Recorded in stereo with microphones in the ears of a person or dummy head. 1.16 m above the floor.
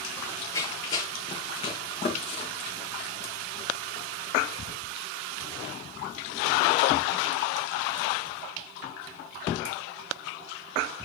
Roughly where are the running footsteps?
Centre.